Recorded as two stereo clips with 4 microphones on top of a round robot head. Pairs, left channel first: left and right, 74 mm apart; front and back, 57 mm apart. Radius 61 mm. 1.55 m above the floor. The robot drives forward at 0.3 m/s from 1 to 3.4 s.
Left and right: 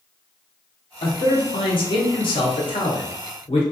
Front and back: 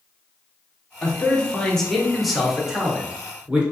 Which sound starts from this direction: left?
A man speaking, at 1.0 s.